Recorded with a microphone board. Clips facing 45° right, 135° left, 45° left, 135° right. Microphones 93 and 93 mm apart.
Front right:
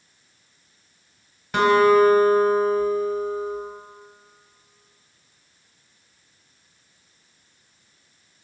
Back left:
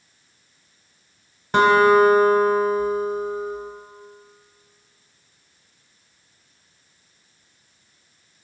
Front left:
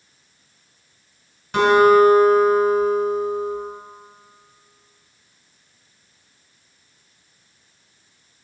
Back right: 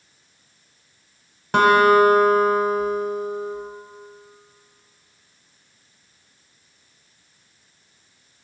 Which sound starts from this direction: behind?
A guitar, at 1.5 s.